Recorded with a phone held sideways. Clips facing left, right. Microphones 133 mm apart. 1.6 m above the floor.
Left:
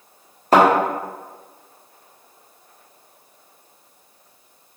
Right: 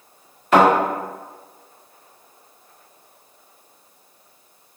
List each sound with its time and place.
0.5 s a thud: 35° left (ahead or behind), 1.1 m